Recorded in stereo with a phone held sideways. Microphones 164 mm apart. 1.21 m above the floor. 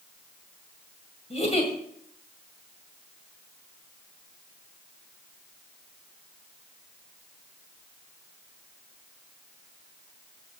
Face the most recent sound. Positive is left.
turn(degrees=40)  # may be behind; listen again after turning